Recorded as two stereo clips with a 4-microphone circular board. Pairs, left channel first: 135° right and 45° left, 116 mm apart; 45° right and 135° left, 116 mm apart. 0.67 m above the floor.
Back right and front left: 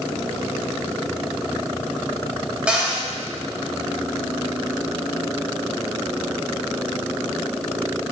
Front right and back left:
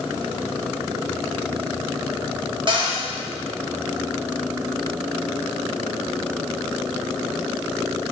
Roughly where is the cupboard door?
Behind left.